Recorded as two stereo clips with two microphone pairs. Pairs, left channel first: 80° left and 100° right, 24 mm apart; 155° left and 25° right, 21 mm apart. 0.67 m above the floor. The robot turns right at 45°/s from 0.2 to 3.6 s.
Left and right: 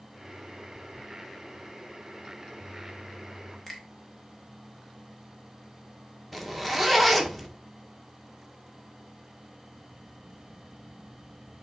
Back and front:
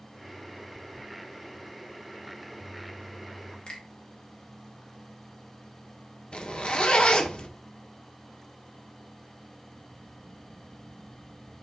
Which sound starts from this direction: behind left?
A finger snap, at 3.7 s.